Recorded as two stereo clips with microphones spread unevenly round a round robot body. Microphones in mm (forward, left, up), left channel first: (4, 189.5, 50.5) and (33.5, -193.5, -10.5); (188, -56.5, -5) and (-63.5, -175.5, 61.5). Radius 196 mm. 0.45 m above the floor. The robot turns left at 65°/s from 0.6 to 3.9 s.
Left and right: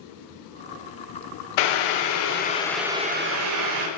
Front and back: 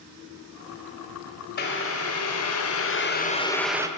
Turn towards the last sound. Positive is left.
turn(degrees=-70)